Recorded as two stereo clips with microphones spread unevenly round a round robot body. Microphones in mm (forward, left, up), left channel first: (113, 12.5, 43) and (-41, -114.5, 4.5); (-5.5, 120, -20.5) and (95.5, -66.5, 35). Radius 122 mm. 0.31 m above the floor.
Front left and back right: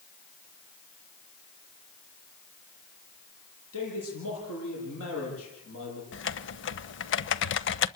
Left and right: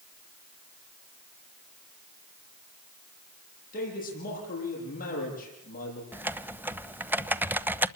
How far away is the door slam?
No door slam in this recording.